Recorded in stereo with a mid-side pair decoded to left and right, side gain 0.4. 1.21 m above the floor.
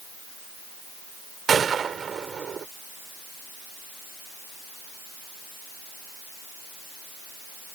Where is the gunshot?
50° right.